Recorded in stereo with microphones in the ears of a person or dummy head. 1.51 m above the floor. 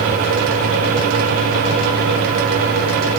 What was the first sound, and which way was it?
Only background noise.